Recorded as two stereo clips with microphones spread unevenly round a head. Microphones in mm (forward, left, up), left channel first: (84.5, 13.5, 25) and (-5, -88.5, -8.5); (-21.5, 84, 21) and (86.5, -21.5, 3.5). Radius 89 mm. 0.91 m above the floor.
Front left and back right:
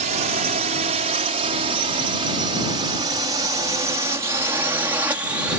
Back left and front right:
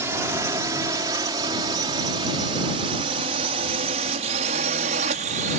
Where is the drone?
115° right; by 5.6 s 60° right.